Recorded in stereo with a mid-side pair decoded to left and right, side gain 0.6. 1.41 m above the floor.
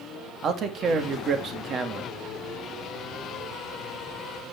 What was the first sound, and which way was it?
A man speaking, 40° right.